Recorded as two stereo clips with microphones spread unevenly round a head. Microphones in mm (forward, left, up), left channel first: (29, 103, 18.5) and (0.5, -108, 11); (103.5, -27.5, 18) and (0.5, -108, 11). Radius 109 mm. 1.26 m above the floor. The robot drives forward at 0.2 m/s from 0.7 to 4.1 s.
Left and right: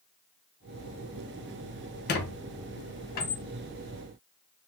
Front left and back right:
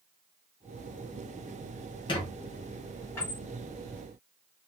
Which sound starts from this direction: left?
A squeak, at 2.1 s.